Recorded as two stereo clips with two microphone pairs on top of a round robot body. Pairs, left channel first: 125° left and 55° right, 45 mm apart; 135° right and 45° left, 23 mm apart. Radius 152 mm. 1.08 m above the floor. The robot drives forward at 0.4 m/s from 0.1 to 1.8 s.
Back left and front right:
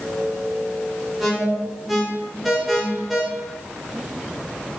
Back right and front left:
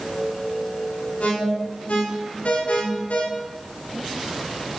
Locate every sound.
1.2 s an alarm: 140° right, 5.5 m